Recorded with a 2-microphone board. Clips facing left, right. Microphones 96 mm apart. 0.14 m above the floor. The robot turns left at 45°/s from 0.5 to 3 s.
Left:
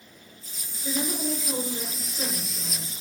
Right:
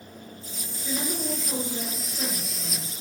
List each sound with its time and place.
0.8 s a woman speaking: 25° left, 2 m; by 2.9 s 65° right, 2 m